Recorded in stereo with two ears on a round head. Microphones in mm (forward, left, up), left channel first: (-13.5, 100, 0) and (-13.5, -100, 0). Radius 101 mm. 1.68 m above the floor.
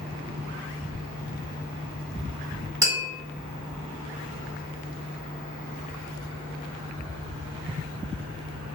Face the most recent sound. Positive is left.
turn(degrees=-15)  # may be behind; listen again after turning